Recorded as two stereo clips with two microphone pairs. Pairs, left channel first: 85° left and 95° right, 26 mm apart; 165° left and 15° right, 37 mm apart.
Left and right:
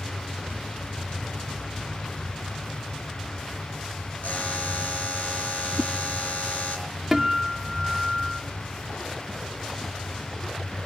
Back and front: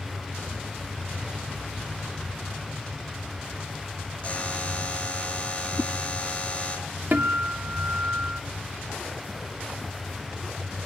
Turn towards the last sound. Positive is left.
turn(degrees=-25)